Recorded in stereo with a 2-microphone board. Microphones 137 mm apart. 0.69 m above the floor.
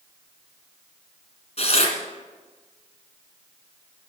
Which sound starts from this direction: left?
Tearing paper, at 1.6 s.